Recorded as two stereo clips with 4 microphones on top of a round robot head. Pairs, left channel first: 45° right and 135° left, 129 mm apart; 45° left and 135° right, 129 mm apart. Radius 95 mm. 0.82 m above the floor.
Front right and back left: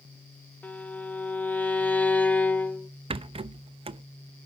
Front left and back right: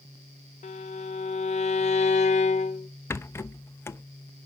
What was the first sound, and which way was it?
A violin, 30° left.